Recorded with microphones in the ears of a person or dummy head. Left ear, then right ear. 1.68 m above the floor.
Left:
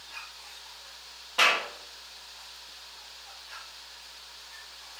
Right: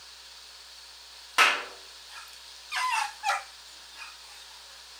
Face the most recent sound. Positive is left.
turn(degrees=-55)  # may be behind; listen again after turning